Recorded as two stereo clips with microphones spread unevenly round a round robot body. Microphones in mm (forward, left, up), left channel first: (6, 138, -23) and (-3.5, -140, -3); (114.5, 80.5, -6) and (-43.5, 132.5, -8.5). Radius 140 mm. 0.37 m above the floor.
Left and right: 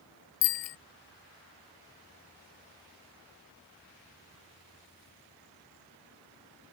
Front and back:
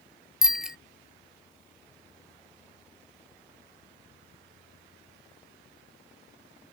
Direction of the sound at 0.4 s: 75° left.